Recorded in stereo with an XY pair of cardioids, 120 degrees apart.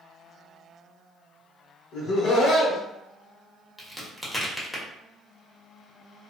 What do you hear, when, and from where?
1.9 s laughter: 65° left, 0.9 m
3.8 s a crack: straight ahead, 0.9 m